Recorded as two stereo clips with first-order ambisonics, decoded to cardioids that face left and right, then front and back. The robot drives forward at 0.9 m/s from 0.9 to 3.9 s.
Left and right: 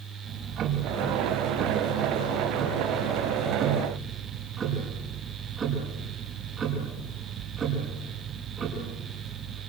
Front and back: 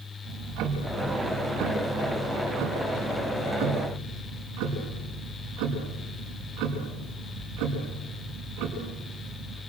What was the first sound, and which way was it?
Ticking, 145° right.